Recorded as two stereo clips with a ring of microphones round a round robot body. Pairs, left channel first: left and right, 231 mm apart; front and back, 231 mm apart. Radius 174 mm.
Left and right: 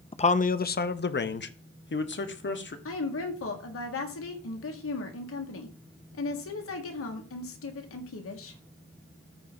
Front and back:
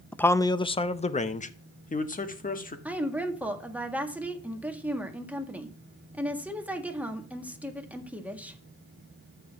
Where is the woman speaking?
95° left, 1.8 m.